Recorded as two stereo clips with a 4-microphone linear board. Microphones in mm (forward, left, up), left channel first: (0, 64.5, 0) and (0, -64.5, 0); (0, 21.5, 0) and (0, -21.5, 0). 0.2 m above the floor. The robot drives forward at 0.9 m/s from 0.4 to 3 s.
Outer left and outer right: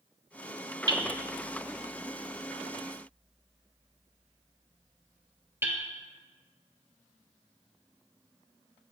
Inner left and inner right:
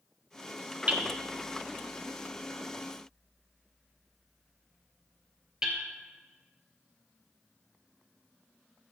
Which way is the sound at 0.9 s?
35° right (ahead or behind).